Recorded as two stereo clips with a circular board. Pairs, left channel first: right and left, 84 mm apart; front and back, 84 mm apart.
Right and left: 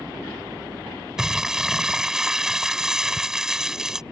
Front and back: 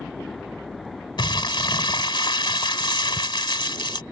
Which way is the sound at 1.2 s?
5° left.